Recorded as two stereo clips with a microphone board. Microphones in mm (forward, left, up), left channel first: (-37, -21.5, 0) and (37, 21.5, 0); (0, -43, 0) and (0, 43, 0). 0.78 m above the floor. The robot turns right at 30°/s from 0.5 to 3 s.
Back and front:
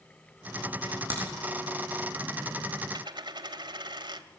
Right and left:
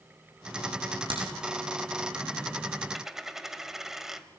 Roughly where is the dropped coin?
Ahead.